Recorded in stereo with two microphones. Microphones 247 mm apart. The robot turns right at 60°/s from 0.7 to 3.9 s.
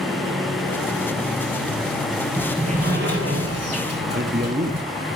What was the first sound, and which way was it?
A sliding door, 175° right.